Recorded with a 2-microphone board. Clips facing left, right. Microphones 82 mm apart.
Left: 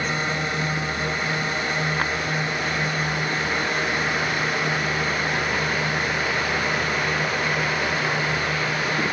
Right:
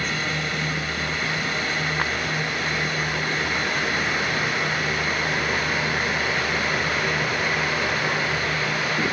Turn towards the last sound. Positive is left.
turn(degrees=25)  # may be behind; listen again after turning